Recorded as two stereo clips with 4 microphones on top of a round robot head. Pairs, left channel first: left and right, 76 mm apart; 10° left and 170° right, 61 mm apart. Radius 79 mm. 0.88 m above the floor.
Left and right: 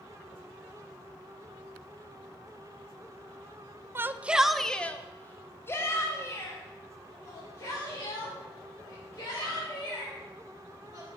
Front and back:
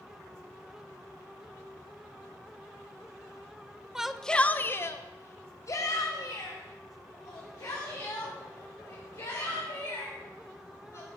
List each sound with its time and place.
4.0 s a shout: 100° right, 0.6 m; by 11.1 s 40° left, 5 m